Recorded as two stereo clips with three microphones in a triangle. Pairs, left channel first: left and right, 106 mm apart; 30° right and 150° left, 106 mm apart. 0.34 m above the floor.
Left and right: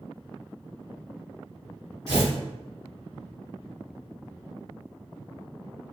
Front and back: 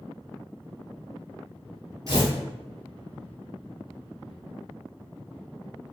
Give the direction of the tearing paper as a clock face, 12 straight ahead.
5 o'clock.